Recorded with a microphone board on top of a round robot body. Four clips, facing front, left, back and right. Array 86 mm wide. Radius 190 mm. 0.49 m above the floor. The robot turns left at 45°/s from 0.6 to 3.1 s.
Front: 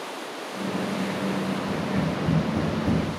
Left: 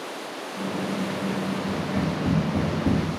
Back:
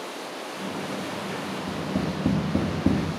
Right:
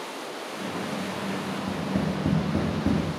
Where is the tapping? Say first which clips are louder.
Left 1 dB, front 2 dB; 105° right, 1.7 m; by 3.0 s 165° right, 1.7 m.